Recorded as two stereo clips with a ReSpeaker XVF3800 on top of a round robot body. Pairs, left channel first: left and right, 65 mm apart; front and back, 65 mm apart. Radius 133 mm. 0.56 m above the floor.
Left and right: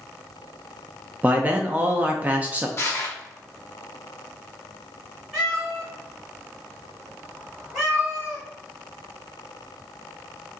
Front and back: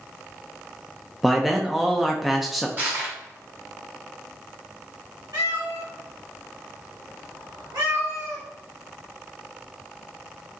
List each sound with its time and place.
1.2 s a man speaking: 95° right, 0.6 m
2.8 s crushing: 130° left, 1.1 m
5.3 s a cat meowing: 175° right, 2.0 m